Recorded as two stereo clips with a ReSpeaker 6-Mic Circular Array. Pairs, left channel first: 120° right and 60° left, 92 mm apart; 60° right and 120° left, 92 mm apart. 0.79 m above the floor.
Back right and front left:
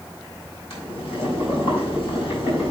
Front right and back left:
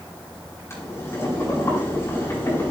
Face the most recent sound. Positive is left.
turn(degrees=-120)